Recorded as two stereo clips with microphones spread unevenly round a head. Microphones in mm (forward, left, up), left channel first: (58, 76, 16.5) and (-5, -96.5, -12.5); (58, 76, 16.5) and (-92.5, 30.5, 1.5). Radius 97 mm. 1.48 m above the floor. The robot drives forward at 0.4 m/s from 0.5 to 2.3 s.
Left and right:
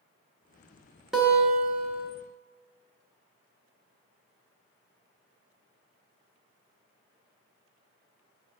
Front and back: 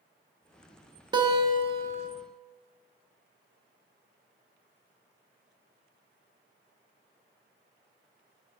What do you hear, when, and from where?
1.1 s a guitar: 150° left, 0.9 m; by 2.1 s 165° left, 1.1 m